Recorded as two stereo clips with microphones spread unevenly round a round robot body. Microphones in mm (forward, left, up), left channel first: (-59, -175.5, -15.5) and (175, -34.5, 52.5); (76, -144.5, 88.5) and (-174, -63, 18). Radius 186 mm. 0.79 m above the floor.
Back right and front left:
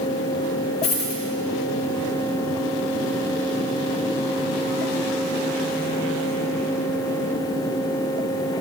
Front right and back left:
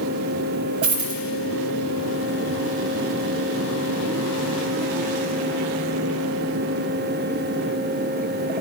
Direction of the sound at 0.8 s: 140° left.